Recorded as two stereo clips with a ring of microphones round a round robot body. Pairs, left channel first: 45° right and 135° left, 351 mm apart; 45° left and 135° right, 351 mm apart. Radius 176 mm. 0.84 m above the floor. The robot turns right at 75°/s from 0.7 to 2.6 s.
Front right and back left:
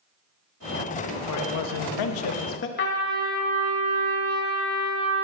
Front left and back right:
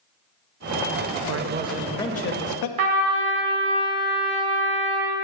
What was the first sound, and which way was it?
A man speaking, 90° right.